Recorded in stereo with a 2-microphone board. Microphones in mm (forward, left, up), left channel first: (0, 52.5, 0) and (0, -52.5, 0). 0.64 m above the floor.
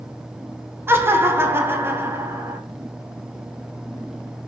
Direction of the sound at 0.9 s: 25° right (ahead or behind).